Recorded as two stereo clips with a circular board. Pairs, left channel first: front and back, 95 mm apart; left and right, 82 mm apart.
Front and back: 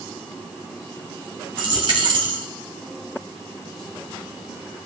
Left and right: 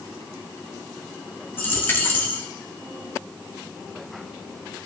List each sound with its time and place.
1.6 s a dropped coin: 155° left, 1.7 m